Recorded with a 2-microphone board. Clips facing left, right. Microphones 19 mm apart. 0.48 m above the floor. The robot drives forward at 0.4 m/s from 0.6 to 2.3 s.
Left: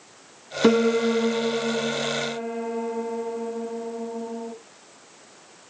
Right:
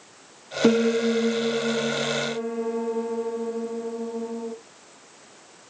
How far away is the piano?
About 1.3 m.